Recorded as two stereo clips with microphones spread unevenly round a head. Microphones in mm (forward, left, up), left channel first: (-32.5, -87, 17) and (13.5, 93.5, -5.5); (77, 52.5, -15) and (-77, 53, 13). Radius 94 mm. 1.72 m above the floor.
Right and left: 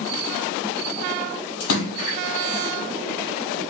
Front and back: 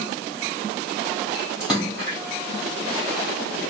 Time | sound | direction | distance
1.6 | a splash | 95° right | 3 m